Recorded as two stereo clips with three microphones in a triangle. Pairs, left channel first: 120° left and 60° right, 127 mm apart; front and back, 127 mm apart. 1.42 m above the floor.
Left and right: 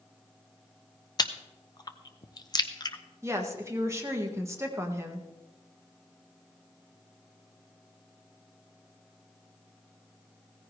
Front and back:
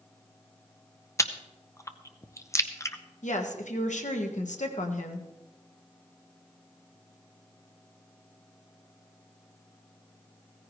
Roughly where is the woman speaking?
Ahead.